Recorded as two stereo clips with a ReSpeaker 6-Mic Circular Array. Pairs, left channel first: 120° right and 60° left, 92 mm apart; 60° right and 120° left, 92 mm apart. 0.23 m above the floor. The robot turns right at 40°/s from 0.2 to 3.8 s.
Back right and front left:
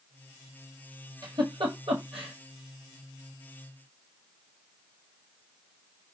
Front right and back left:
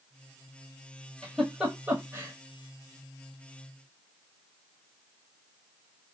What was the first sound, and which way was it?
A giggle, 20° left.